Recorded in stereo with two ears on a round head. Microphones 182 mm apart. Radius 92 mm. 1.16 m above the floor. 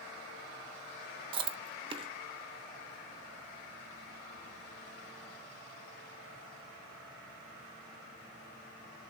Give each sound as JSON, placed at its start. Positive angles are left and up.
{"t": 1.3, "sound": "chewing", "side_deg": -25, "distance_m": 0.6}